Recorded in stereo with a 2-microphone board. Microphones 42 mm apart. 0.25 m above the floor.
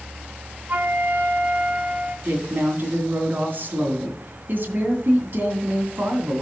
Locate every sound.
0.7 s a flute: 45° right (ahead or behind), 1.2 m
2.2 s a woman speaking: 55° right (ahead or behind), 2.5 m